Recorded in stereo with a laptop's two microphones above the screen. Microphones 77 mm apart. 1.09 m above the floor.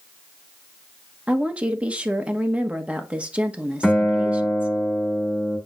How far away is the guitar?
About 3.5 m.